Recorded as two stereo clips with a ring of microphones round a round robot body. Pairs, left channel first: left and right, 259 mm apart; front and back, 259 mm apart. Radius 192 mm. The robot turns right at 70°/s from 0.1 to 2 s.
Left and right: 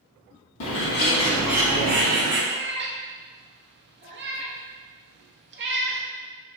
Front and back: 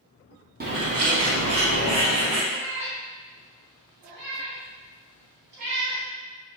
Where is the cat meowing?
145° right, 0.6 m.